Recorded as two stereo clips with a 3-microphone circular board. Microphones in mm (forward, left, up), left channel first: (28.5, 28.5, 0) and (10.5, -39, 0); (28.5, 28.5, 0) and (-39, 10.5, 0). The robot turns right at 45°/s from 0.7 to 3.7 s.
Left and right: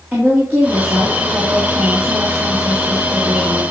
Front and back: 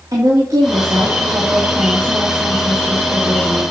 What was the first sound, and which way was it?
A woman speaking, 165° right.